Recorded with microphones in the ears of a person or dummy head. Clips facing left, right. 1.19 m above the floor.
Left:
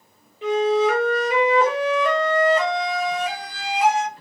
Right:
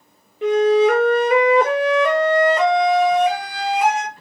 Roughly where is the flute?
Right.